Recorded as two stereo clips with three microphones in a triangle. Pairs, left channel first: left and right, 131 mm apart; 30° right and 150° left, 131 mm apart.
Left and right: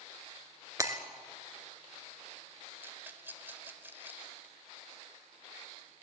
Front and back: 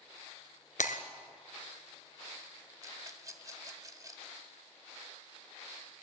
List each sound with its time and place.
0.8 s breaking glass: 25° right, 1.4 m
2.8 s a rattle: 160° right, 1.5 m